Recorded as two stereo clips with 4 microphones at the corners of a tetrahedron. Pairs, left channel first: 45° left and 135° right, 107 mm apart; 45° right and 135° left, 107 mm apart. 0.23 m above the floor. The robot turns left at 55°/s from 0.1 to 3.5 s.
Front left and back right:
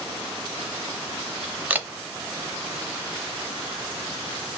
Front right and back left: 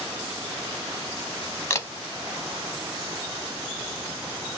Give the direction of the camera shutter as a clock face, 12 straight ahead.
2 o'clock.